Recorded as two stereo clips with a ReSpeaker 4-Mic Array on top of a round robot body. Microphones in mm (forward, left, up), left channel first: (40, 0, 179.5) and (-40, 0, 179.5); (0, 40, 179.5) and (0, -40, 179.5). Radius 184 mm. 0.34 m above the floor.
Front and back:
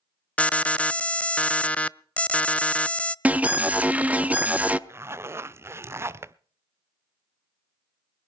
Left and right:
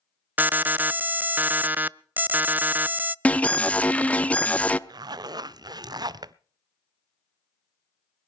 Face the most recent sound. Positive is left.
turn(degrees=-125)